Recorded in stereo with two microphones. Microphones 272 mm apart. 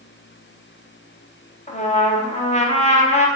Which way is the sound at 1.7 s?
25° left (ahead or behind).